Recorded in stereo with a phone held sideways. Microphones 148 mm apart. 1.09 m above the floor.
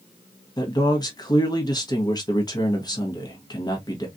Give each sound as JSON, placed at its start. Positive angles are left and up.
{"t": 0.6, "sound": "a man speaking", "side_deg": 25, "distance_m": 1.2}